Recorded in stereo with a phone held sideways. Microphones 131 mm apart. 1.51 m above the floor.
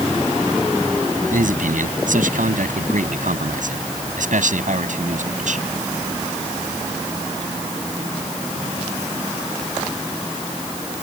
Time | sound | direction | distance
1.3 | a man speaking | 85° right | ?